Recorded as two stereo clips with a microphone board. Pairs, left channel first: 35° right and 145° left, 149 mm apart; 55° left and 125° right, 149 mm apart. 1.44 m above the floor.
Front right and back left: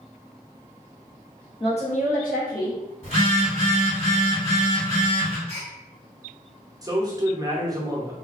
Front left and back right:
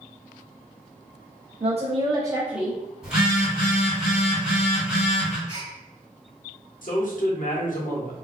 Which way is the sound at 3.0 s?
45° right.